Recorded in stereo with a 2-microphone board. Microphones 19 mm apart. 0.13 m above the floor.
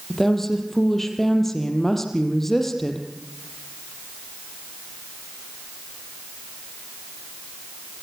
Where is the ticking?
No ticking in this recording.